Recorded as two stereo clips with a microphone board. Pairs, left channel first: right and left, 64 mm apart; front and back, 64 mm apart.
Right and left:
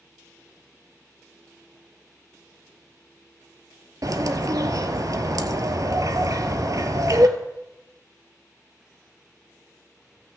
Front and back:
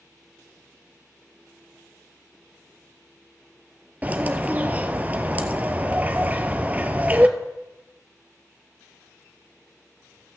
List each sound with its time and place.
4.0 s a bird: 115° left, 0.7 m